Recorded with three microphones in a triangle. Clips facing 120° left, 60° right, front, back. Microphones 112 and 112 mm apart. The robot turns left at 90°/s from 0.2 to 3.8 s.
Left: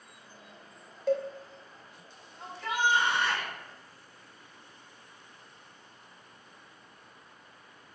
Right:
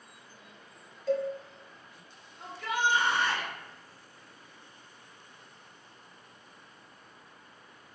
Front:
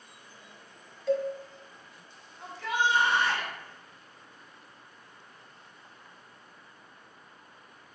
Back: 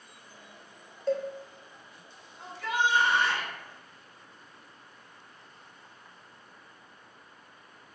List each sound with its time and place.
1.1 s a cowbell: 130° left, 0.7 m; by 1.3 s 110° left, 0.7 m
2.4 s a shout: 115° left, 1.8 m; by 3.5 s 15° left, 1.8 m